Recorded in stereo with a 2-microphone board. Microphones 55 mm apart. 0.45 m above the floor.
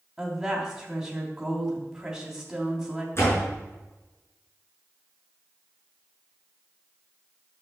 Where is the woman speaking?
5° right (ahead or behind), 3 m.